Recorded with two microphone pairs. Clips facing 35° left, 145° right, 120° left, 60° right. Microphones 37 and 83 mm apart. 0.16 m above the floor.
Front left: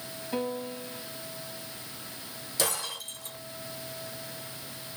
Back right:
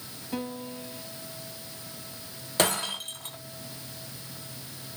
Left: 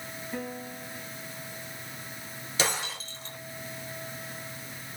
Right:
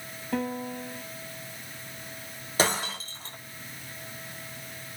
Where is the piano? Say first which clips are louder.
Front left 2 dB, right 7 dB; 50° right, 2.5 m.